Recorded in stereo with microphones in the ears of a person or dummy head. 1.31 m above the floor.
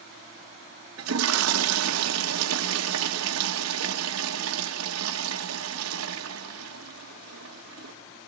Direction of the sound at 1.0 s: 85° right.